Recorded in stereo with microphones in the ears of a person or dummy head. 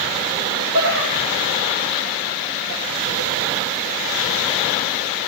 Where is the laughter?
55° right (ahead or behind), 2.5 m.